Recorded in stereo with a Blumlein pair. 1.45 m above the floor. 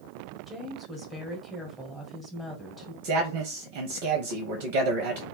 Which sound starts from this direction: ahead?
A woman speaking, at 0.5 s.